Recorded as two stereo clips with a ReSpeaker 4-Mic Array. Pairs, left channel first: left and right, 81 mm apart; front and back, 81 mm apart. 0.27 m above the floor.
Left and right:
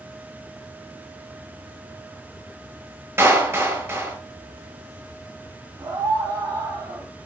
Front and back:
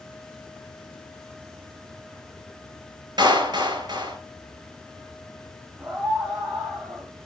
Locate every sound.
3.2 s a clap: 150° right, 4.5 m
5.8 s a scream: 105° right, 2 m